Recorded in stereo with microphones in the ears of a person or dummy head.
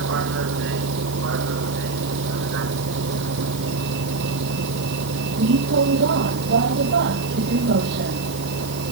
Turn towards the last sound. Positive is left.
turn(degrees=-60)  # may be behind; listen again after turning